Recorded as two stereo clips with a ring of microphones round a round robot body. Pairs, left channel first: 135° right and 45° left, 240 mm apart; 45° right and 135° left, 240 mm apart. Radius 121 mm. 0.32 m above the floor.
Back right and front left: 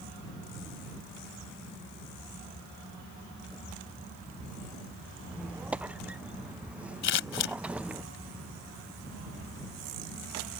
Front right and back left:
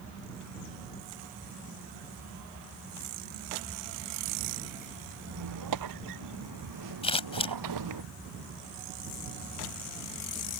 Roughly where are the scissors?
Right.